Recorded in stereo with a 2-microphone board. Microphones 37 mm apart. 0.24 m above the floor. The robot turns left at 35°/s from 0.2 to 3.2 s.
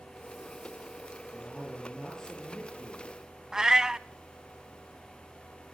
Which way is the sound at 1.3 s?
160° right.